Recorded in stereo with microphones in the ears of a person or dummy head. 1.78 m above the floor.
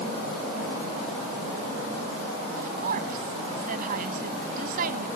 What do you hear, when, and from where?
2.6 s a woman speaking: 50° right (ahead or behind)